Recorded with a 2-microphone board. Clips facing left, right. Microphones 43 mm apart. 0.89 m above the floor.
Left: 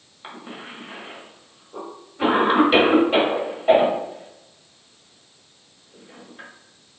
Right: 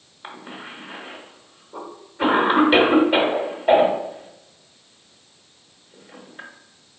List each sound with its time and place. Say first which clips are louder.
0.2 s a cough: right 1 dB; 5° right (ahead or behind), 1.4 m